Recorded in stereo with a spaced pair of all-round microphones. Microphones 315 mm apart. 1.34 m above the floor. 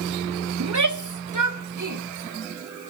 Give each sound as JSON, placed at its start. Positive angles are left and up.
{"t": 0.6, "sound": "a shout", "side_deg": -60, "distance_m": 0.7}